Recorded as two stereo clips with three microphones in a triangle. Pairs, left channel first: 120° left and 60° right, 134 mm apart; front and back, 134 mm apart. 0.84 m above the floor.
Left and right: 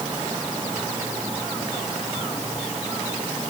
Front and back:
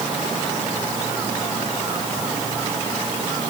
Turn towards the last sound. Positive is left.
No sound to turn to.